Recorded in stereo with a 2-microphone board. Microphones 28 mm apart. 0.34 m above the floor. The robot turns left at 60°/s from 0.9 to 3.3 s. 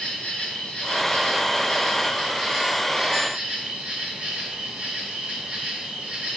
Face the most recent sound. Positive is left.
turn(degrees=-55)